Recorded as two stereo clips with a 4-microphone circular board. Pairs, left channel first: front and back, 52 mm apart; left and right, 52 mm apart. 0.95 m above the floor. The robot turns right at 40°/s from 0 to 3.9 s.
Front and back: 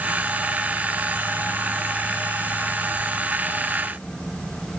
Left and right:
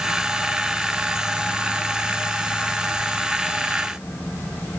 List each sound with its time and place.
Only background noise.